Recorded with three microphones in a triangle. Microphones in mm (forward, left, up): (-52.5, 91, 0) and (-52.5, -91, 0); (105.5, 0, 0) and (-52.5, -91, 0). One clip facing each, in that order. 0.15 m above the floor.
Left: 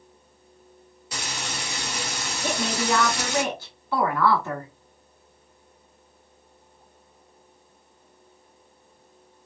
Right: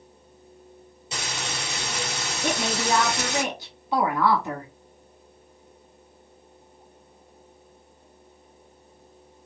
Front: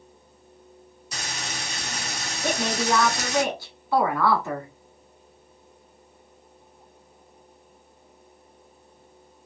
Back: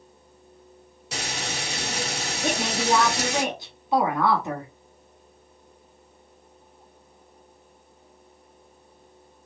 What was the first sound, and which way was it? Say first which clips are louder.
Frying: right 1 dB, back 4 dB; 155° right.